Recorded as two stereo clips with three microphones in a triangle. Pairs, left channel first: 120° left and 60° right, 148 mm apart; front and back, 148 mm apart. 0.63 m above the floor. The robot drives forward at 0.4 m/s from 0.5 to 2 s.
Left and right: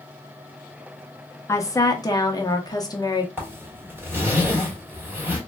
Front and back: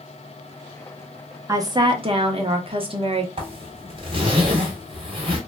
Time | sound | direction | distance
1.5 | a woman speaking | 155° left | 0.5 m
3.4 | a zipper | 135° right | 1.2 m